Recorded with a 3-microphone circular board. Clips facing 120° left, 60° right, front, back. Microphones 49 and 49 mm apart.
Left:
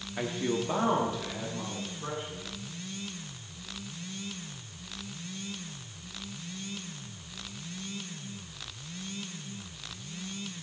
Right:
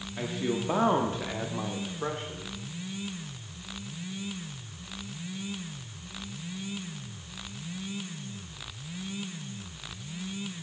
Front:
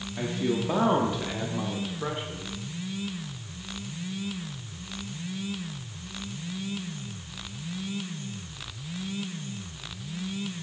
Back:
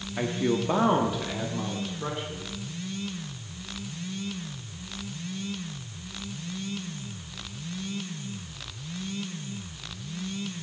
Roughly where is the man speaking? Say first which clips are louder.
Even, back 2 dB; behind.